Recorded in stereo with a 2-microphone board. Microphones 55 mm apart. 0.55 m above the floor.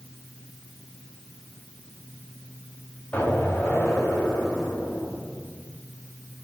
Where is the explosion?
25° left (ahead or behind), 2.5 m.